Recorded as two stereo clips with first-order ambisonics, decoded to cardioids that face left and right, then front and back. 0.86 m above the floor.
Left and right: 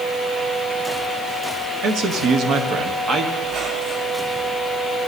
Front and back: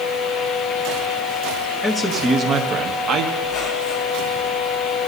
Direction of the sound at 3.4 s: 55° right.